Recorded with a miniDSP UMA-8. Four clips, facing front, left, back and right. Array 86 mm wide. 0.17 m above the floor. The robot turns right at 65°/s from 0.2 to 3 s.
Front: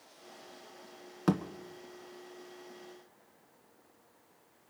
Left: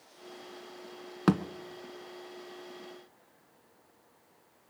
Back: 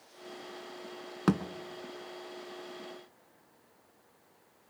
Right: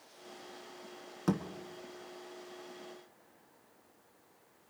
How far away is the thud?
About 1.0 m.